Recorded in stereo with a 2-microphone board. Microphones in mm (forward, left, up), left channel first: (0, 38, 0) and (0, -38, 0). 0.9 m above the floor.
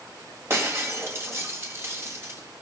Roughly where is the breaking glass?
Right.